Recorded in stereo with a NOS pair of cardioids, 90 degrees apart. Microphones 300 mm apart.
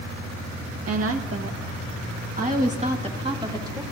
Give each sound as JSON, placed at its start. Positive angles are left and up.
{"t": 0.9, "sound": "a woman speaking", "azimuth_deg": -50, "distance_m": 2.5}